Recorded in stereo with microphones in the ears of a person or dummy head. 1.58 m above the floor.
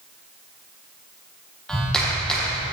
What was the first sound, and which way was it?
A clap, 5° left (ahead or behind).